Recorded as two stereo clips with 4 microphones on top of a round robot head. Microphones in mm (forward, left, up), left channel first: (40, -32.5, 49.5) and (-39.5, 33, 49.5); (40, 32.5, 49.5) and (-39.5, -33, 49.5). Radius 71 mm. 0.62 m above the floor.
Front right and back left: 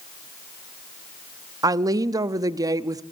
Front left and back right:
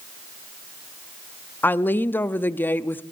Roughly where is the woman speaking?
Left.